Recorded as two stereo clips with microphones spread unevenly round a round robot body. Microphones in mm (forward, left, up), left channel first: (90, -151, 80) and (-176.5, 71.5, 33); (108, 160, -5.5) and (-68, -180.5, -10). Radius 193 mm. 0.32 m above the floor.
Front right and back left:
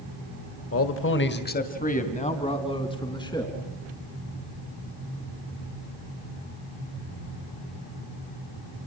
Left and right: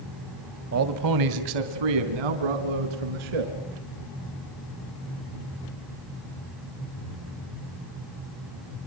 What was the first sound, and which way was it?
A man speaking, 80° right.